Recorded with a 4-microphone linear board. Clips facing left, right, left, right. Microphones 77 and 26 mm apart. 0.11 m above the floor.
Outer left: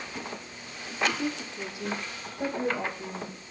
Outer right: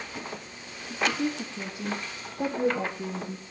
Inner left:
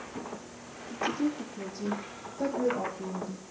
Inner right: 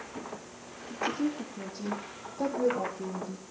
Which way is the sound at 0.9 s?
55° right (ahead or behind).